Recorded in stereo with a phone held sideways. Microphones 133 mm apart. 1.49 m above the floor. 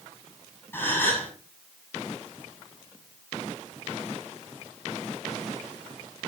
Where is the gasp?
15° left (ahead or behind), 7 m.